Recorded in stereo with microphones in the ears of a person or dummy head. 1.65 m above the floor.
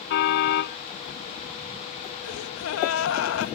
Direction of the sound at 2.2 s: 85° left.